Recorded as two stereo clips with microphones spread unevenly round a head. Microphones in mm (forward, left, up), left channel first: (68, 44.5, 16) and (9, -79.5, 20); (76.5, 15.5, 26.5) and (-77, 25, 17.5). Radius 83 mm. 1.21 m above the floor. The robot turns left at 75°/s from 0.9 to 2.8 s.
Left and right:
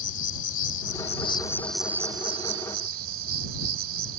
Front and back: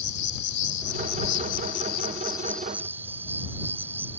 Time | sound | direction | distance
0.0 | an insect | 40° left | ?